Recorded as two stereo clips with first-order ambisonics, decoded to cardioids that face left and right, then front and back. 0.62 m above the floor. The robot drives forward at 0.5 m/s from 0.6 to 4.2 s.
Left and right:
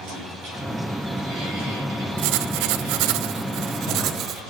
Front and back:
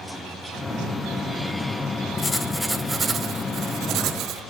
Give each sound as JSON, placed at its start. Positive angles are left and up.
{"t": 2.2, "sound": "writing", "azimuth_deg": -75, "distance_m": 0.8}